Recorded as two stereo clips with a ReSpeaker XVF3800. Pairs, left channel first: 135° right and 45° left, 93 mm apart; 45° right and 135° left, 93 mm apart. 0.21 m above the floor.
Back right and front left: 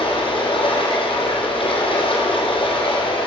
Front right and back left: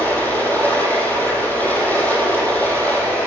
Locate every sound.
0.0 s running water: 115° right, 3 m